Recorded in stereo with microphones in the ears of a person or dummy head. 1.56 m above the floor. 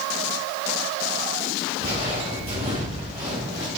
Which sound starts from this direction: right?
Footsteps, at 1.8 s.